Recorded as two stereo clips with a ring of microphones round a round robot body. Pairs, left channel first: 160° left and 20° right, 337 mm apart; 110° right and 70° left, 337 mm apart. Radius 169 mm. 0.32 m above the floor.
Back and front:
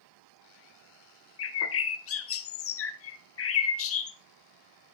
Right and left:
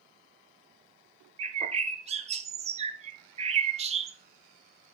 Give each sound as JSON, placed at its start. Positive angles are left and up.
{"t": 1.4, "sound": "a bird", "azimuth_deg": 130, "distance_m": 0.6}